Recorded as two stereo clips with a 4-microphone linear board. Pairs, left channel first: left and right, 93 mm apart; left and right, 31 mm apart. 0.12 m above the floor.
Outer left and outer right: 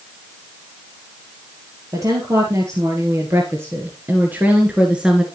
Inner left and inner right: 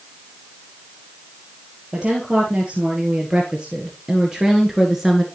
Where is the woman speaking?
35° right (ahead or behind), 2.5 m; by 5.2 s 5° right (ahead or behind), 1.4 m.